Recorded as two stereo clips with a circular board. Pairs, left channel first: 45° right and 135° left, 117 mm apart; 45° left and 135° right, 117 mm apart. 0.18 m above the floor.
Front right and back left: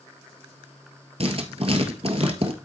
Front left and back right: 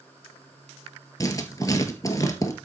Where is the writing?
105° left, 1.4 m.